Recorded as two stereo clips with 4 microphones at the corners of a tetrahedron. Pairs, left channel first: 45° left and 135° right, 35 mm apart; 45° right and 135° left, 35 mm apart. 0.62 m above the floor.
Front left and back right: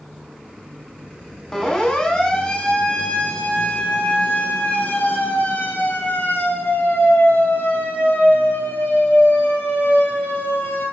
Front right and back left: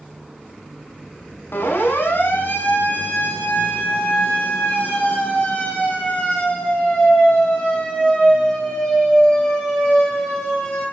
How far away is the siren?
About 6.5 m.